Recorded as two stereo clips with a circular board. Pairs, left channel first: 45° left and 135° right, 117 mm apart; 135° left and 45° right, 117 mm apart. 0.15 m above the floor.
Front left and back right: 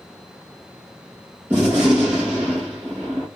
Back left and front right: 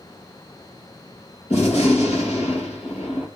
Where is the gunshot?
155° left, 1.9 m.